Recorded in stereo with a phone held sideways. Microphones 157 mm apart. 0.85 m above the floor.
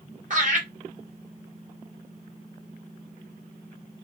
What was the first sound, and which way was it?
Laughter, 50° right (ahead or behind).